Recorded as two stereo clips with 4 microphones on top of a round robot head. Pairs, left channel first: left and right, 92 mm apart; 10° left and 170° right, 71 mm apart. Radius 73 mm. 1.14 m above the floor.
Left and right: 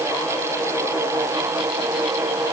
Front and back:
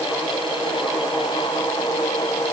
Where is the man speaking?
No man speaking in this recording.